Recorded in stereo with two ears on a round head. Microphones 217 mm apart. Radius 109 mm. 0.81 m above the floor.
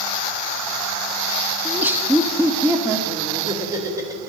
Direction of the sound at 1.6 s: 5° right (ahead or behind).